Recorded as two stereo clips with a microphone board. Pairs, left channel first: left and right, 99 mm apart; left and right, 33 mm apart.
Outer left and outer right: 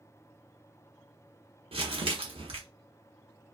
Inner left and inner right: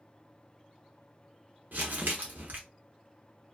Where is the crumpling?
70° right (ahead or behind), 1.0 m.